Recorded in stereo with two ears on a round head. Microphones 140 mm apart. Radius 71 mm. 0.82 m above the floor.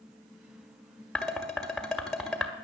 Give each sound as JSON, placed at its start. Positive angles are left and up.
{"t": 1.1, "sound": "dishes clattering", "side_deg": 0, "distance_m": 1.6}